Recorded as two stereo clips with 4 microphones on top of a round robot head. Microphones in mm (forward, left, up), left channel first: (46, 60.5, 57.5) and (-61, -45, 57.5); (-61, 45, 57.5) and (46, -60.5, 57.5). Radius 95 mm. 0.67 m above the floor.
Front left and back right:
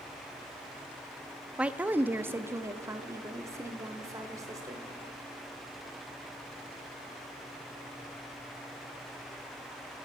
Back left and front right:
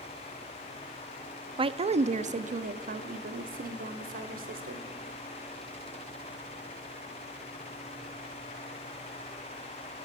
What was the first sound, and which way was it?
A woman speaking, 60° right.